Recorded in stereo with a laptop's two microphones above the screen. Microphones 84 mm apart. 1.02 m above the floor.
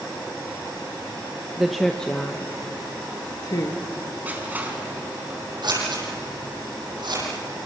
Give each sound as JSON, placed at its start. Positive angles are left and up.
{"t": 1.6, "sound": "a woman speaking", "side_deg": -5, "distance_m": 0.9}
{"t": 4.2, "sound": "crushing", "side_deg": -20, "distance_m": 4.5}
{"t": 5.6, "sound": "scissors", "side_deg": -65, "distance_m": 9.0}